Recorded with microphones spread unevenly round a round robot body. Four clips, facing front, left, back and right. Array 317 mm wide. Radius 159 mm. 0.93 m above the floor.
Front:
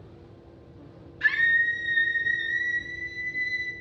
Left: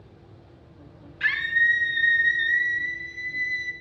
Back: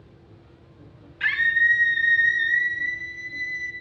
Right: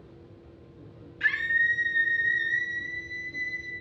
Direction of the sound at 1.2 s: 165° left.